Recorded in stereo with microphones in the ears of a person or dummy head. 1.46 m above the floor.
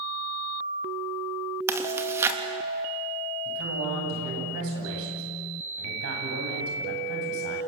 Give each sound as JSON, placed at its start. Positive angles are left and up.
{"t": 1.7, "sound": "chewing", "side_deg": -15, "distance_m": 3.0}
{"t": 3.5, "sound": "a man speaking", "side_deg": -75, "distance_m": 9.0}